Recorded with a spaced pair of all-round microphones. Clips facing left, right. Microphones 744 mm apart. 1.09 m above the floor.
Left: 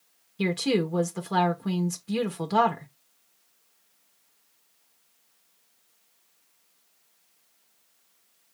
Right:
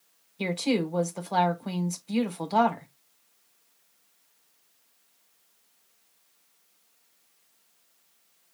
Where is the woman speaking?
50° left (ahead or behind), 0.9 m.